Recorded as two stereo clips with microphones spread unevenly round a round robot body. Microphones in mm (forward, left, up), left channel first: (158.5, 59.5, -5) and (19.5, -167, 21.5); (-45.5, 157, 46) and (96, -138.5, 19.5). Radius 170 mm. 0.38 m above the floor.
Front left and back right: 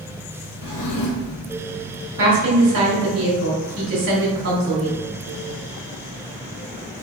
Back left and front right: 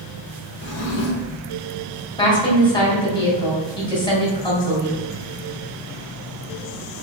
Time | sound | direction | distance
0.6 | a drawer | 70° left | 1.1 m
2.2 | a woman speaking | 165° right | 1.4 m